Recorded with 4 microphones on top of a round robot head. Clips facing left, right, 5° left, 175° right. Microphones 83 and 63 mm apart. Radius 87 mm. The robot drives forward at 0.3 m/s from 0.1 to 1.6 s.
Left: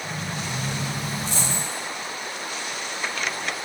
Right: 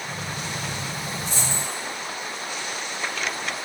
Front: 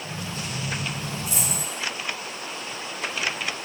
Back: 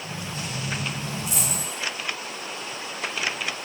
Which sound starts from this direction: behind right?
A dropped coin, at 1.2 s.